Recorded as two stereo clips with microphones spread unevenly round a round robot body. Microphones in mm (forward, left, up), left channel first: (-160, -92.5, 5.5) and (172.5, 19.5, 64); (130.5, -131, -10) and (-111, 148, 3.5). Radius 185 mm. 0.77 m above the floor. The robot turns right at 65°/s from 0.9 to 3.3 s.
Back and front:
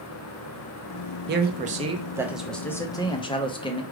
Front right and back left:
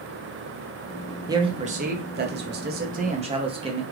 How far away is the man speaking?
About 0.6 m.